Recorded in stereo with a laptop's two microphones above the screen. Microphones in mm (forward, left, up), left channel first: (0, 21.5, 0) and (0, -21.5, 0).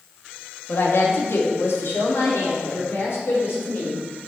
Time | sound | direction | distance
0.7 | a woman speaking | 65° left (ahead or behind) | 1.6 m